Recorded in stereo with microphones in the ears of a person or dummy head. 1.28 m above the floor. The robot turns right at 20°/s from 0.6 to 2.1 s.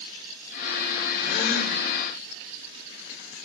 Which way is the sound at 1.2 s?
40° left (ahead or behind).